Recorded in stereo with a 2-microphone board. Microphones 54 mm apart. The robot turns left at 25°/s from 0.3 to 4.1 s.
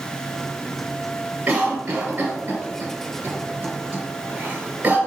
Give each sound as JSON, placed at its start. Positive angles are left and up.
{"t": 1.5, "sound": "a cough", "side_deg": -20, "distance_m": 1.3}